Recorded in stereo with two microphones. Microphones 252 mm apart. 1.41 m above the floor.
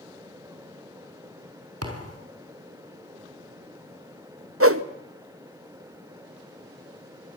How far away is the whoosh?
About 1.0 m.